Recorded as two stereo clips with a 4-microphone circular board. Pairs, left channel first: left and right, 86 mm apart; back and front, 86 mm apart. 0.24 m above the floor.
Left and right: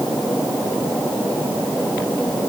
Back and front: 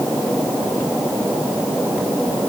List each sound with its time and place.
Only background noise.